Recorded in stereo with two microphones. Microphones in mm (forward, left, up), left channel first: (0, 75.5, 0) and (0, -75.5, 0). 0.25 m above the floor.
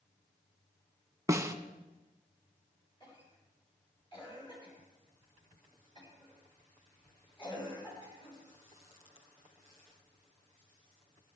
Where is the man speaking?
No man speaking in this recording.